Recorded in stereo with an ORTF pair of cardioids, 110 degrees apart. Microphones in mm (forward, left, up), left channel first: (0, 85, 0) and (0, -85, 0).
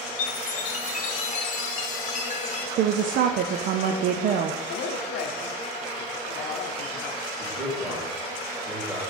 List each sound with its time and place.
0.2 s a chime: 50° left, 1.0 m
2.8 s a woman speaking: 65° right, 0.5 m
4.7 s a woman speaking: 65° left, 0.7 m
7.4 s a man speaking: straight ahead, 3 m